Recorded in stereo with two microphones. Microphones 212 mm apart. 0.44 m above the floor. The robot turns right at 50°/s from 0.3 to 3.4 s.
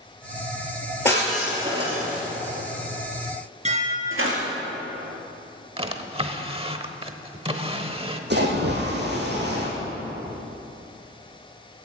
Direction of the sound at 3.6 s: 30° right (ahead or behind).